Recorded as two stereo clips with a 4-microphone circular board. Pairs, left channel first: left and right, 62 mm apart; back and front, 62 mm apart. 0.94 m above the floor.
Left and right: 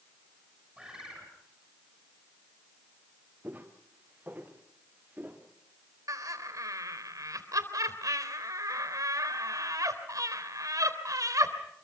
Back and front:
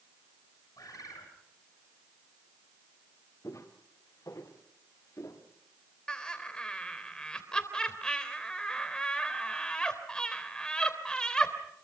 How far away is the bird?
About 6.5 m.